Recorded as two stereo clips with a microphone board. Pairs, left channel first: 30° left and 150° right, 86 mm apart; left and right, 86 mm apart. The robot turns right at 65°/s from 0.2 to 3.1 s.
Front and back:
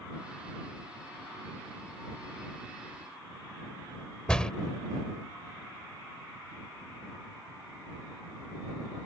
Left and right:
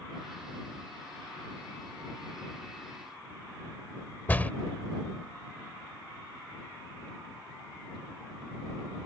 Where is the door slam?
95° left.